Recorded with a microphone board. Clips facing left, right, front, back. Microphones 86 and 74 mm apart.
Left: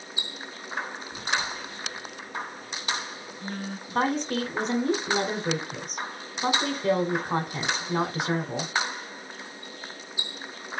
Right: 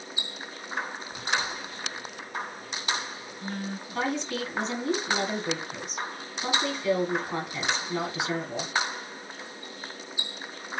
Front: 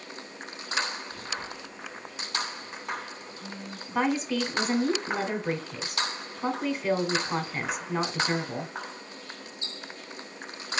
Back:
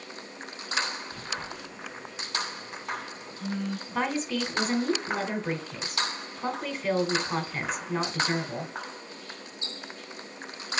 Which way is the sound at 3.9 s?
80° left.